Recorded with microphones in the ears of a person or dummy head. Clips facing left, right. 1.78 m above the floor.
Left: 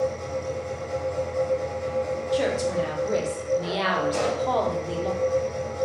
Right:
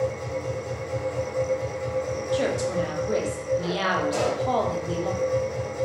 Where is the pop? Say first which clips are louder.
Even; 55° right (ahead or behind), 1.7 m.